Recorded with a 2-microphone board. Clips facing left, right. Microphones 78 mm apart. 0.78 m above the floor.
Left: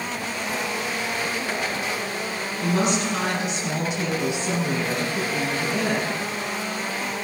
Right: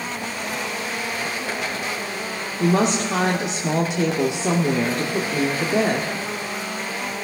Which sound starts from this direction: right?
A woman speaking, at 2.6 s.